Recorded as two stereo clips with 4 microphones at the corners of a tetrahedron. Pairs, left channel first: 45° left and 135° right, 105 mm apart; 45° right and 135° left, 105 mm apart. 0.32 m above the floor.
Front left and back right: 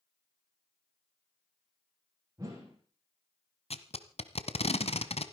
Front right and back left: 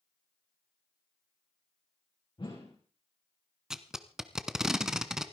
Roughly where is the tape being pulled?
Ahead left.